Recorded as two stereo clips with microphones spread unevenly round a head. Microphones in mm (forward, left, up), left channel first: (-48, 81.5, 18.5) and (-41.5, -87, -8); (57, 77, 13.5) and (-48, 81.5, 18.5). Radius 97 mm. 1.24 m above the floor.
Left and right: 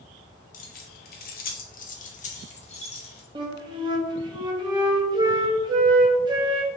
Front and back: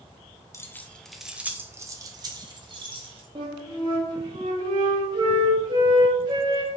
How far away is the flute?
About 0.7 m.